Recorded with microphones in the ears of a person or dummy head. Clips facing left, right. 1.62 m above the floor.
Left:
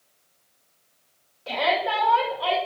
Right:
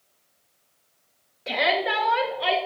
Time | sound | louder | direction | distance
1.5 | a shout | even | 30° right (ahead or behind) | 1.9 m